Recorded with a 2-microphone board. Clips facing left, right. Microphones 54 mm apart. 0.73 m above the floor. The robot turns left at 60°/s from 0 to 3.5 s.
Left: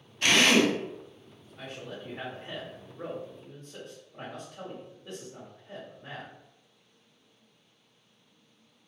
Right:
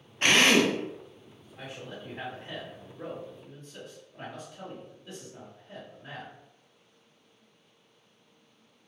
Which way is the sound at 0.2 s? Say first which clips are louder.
Right 1 dB; 125° right.